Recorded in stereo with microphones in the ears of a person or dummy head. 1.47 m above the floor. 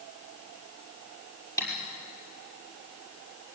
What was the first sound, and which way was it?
Tapping, 15° left (ahead or behind).